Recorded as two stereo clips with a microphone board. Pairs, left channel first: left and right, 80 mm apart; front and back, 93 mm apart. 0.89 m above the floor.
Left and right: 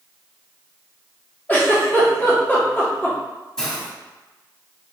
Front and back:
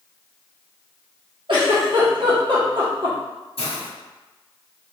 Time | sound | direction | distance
1.5 | a giggle | 160° left | 1.7 m
3.6 | a hiss | 10° left | 1.2 m